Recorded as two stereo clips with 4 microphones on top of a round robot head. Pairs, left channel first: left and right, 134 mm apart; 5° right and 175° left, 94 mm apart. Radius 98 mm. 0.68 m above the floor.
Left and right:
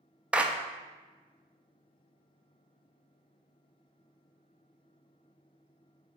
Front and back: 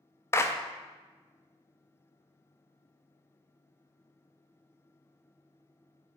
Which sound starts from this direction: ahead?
A clap, at 0.3 s.